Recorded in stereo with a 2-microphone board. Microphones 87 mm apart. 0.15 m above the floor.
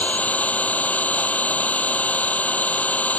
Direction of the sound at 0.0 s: 15° left (ahead or behind).